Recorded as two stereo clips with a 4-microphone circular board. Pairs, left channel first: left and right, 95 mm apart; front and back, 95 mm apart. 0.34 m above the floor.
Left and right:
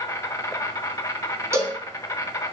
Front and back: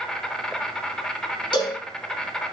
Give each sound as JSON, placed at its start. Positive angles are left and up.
{"t": 0.0, "sound": "an insect", "azimuth_deg": 80, "distance_m": 0.7}
{"t": 1.5, "sound": "a cowbell", "azimuth_deg": -30, "distance_m": 1.1}